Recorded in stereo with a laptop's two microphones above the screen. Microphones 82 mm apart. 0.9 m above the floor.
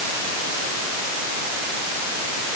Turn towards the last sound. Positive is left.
No sound to turn to.